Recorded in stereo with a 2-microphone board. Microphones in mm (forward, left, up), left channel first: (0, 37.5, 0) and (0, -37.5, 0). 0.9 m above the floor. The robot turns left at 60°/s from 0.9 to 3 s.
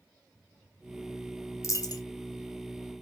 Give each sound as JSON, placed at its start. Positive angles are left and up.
{"t": 1.6, "sound": "a dropped coin", "side_deg": 45, "distance_m": 0.6}